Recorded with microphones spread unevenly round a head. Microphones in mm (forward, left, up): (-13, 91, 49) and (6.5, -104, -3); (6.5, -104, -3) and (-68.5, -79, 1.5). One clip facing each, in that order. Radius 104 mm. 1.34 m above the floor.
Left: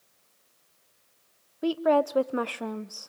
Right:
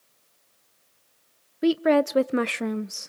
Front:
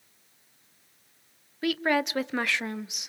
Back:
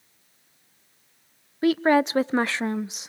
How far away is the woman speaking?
About 0.7 m.